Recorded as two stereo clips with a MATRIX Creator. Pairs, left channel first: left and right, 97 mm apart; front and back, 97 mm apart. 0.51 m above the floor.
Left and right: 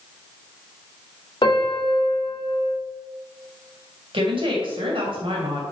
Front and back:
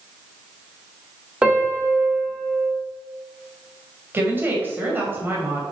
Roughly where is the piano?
Left.